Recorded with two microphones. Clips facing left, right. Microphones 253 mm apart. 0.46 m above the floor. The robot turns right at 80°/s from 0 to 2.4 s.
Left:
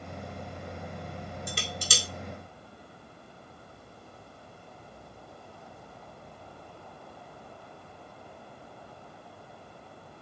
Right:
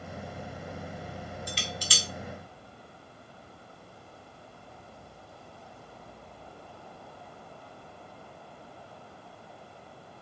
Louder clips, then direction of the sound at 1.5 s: Left 1 dB; 55° left (ahead or behind).